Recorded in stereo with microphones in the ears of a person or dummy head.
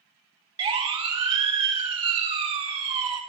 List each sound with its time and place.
0.6 s a siren: 30° right (ahead or behind), 4.5 m; by 3.2 s 35° right (ahead or behind), 6 m